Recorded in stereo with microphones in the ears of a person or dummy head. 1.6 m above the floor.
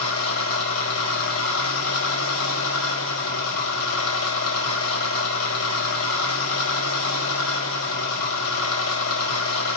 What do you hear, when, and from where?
0.0 s an engine running: 80° left, 5 m